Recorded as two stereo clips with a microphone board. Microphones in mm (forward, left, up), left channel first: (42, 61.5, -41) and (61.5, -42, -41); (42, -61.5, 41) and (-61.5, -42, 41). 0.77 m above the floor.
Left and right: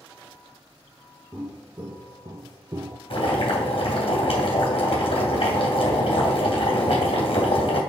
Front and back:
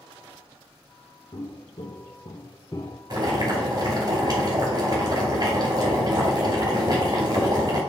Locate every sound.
1.3 s footsteps: 10° right, 1.7 m; by 3.0 s 65° right, 0.9 m
3.1 s boiling: 125° left, 2.5 m